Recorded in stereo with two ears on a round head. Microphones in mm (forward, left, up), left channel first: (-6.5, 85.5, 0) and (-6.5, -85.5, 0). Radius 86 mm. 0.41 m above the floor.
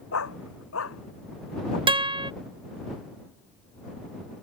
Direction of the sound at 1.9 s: 25° right (ahead or behind).